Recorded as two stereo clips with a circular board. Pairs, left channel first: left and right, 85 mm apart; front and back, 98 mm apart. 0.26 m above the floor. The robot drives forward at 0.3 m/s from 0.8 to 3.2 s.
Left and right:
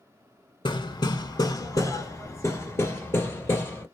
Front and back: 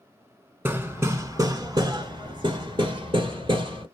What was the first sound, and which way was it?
Hammering, 110° left.